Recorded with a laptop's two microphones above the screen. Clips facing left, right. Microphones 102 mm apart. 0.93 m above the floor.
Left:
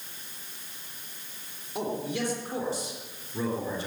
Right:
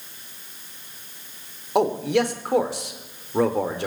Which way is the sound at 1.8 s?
80° right.